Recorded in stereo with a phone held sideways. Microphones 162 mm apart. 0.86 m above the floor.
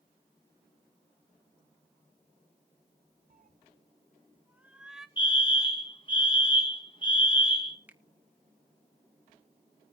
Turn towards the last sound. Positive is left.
turn(degrees=-10)  # may be behind; listen again after turning